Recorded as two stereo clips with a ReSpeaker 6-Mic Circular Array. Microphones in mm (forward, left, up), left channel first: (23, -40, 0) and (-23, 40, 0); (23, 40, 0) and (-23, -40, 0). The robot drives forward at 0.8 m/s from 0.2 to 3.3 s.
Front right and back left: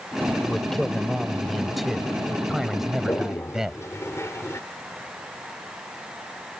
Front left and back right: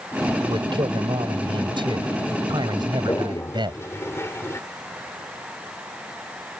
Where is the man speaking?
145° right; by 3.8 s 155° right.